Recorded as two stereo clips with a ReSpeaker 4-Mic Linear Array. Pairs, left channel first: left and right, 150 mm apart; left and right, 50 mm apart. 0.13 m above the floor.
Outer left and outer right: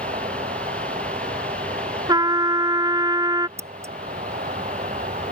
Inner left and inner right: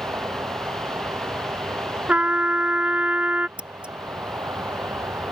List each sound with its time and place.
0.0 s an insect: 60° right (ahead or behind)
2.1 s a trumpet: 30° right (ahead or behind)
3.6 s scissors: 20° right (ahead or behind)